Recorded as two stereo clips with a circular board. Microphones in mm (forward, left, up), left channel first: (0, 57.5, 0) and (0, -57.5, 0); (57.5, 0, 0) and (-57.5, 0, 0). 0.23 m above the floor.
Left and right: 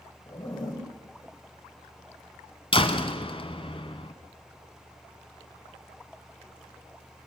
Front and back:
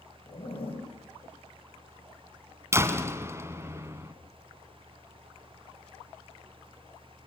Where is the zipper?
35° left, 7.5 m.